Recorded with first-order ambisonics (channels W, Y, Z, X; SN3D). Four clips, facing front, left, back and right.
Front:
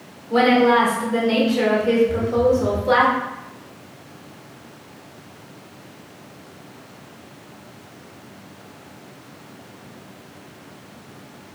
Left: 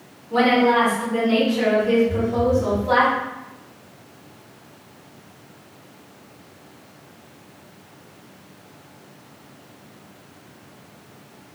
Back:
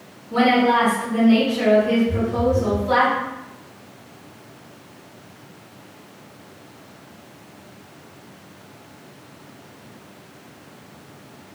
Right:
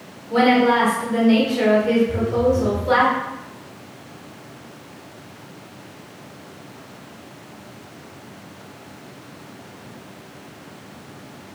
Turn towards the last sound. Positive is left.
turn(degrees=180)